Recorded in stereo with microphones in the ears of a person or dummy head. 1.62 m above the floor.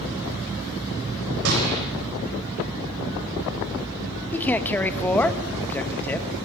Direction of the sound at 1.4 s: 65° right (ahead or behind).